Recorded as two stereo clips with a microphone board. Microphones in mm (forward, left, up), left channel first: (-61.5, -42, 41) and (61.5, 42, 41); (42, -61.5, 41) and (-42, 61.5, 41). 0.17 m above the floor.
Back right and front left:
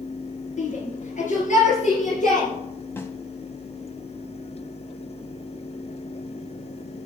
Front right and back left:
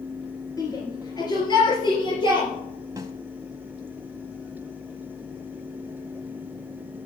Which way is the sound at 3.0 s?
160° left.